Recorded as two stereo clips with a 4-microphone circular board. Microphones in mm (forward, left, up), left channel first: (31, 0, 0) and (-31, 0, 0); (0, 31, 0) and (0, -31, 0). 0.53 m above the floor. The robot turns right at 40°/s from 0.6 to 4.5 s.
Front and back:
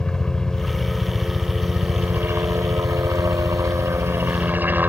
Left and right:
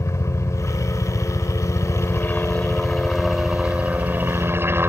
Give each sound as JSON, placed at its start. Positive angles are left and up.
{"t": 0.0, "sound": "a helicopter", "azimuth_deg": 75}